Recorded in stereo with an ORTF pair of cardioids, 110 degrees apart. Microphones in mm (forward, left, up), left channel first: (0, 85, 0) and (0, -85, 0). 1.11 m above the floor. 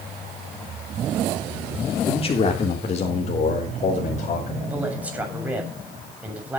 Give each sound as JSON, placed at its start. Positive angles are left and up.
{"t": 2.1, "sound": "a man speaking", "azimuth_deg": 35, "distance_m": 3.0}
{"t": 4.6, "sound": "a man speaking", "azimuth_deg": -10, "distance_m": 7.5}